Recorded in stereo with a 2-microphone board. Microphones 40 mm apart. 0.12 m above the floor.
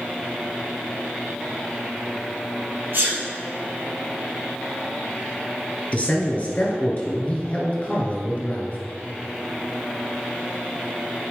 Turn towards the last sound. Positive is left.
turn(degrees=35)  # may be behind; listen again after turning